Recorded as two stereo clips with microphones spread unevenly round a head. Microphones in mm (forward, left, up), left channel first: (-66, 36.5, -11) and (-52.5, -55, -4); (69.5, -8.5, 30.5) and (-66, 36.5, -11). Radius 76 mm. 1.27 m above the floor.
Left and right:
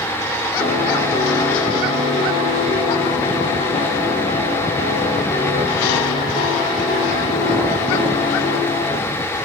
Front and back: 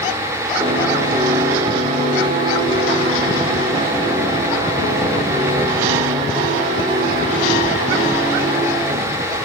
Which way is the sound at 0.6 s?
100° left.